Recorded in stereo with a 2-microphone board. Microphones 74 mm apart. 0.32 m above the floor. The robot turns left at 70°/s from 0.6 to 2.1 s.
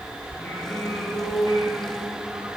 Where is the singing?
150° left, 4.5 m; by 2.5 s 45° left, 4.5 m.